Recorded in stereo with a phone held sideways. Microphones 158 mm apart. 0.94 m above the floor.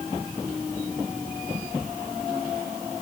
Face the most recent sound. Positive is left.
No sound to turn to.